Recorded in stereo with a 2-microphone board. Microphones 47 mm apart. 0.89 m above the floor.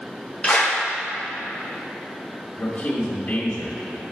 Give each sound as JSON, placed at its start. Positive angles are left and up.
{"t": 0.4, "sound": "a clap", "side_deg": 30, "distance_m": 1.7}
{"t": 2.6, "sound": "a man speaking", "side_deg": 50, "distance_m": 1.8}